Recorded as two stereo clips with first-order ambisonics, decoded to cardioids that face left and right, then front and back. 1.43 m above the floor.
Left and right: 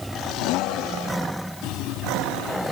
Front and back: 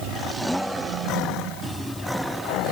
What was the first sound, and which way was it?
Only background noise.